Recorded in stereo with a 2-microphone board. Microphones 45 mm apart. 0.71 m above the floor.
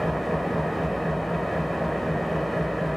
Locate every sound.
0.0 s an engine running: centre (ahead or behind), 1.1 m